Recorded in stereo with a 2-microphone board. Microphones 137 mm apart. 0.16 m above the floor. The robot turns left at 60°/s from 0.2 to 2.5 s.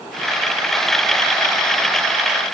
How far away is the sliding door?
I don't hear a sliding door.